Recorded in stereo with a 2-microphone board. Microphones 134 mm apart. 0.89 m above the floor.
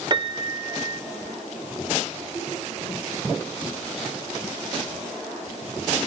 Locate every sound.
0.1 s a piano: 35° right (ahead or behind), 0.6 m